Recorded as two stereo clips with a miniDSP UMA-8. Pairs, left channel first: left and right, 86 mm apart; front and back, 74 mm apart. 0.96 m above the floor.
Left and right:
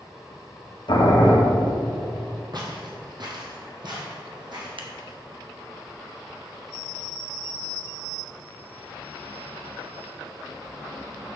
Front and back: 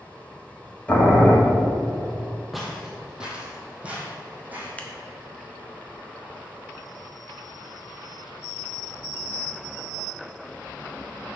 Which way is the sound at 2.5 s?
90° right.